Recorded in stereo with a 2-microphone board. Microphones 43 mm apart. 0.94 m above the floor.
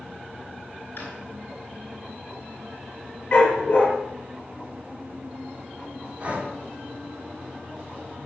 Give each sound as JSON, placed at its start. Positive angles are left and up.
{"t": 1.0, "sound": "a drawer", "side_deg": 55, "distance_m": 4.0}
{"t": 3.3, "sound": "a dog barking", "side_deg": 30, "distance_m": 7.5}
{"t": 6.2, "sound": "breathing", "side_deg": -30, "distance_m": 3.0}